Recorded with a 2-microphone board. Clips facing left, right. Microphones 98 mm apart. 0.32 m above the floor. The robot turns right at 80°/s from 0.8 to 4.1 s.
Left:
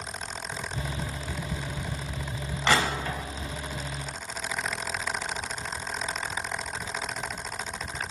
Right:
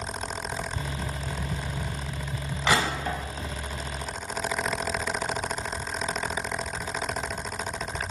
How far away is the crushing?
About 0.7 m.